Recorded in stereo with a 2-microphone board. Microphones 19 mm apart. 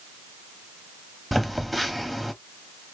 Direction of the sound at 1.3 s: Centre (ahead or behind).